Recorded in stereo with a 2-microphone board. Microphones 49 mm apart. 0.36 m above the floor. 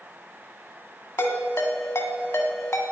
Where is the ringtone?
70° left (ahead or behind), 1.8 m.